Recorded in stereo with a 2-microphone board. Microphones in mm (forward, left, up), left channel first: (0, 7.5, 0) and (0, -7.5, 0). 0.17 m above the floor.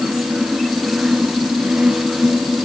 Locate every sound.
Only background noise.